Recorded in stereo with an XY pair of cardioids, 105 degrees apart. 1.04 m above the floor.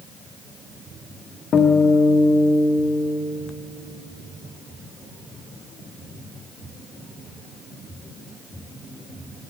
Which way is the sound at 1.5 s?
55° left.